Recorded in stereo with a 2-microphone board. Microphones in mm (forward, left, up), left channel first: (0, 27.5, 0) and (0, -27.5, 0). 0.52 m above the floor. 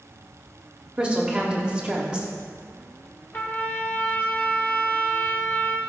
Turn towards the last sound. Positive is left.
turn(degrees=40)  # may be behind; listen again after turning